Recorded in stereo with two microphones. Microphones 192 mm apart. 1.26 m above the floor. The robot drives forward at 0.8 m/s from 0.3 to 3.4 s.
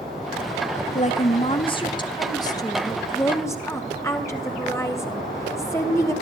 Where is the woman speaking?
40° left (ahead or behind), 1.2 m; by 6.1 s 15° left (ahead or behind), 3 m.